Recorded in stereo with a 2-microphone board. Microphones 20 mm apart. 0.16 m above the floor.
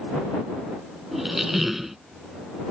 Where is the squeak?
15° right (ahead or behind).